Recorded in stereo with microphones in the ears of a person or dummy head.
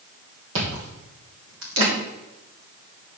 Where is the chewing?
70° right (ahead or behind), 2 m.